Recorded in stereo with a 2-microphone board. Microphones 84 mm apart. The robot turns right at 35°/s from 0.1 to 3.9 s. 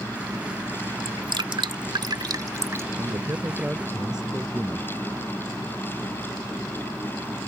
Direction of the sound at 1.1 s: 70° right (ahead or behind).